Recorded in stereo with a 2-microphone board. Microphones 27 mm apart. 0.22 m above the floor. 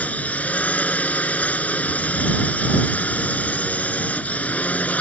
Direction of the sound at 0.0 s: 65° left (ahead or behind).